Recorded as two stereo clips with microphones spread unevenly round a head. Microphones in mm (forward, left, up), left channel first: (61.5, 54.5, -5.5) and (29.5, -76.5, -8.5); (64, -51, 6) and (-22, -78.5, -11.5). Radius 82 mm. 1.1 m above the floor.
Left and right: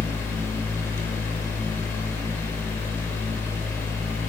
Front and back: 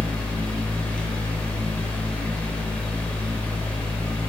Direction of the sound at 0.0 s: 35° left.